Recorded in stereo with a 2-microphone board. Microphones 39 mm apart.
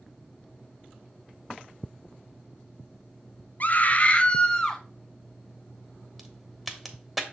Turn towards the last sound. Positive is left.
turn(degrees=-5)  # may be behind; listen again after turning